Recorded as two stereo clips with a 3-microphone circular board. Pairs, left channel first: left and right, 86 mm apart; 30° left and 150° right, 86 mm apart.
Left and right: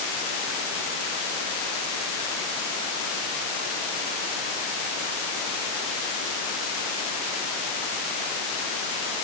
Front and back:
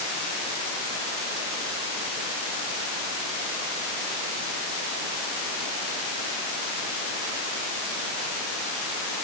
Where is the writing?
No writing in this recording.